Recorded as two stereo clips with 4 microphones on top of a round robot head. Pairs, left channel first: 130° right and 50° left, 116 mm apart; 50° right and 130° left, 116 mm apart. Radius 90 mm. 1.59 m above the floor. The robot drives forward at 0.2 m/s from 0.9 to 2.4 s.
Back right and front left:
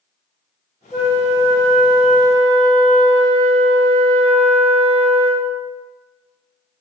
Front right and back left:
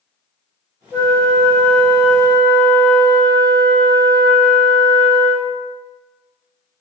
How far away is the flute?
About 1.5 m.